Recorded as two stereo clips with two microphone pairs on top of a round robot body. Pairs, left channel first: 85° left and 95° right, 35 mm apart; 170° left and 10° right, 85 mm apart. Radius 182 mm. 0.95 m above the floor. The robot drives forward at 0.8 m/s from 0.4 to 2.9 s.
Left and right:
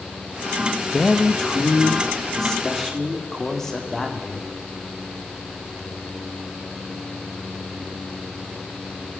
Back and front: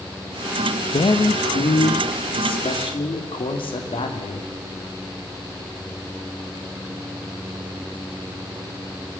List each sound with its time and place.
0.9 s a man speaking: 155° left, 1.7 m; by 4.5 s 165° left, 3 m